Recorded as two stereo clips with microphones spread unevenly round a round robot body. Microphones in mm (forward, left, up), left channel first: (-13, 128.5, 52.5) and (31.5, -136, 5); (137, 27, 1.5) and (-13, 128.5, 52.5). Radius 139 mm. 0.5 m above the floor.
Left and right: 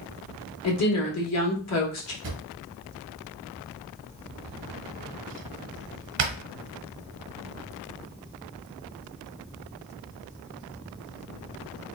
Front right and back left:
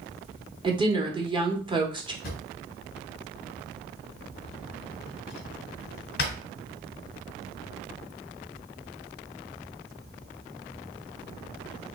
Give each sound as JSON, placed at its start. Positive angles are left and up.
{"t": 0.6, "sound": "a woman speaking", "azimuth_deg": 75, "distance_m": 1.2}
{"t": 2.2, "sound": "a drawer", "azimuth_deg": -55, "distance_m": 0.9}